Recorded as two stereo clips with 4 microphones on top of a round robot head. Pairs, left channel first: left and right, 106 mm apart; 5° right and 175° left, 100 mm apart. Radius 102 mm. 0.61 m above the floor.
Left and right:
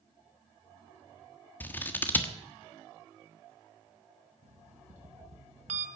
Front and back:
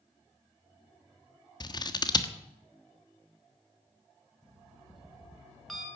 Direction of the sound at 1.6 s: 20° left.